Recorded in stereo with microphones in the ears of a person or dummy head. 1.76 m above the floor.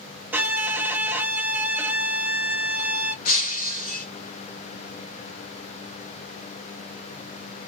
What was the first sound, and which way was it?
A violin, 10° right (ahead or behind).